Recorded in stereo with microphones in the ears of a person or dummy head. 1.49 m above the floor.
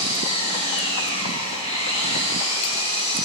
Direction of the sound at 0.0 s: 35° left (ahead or behind).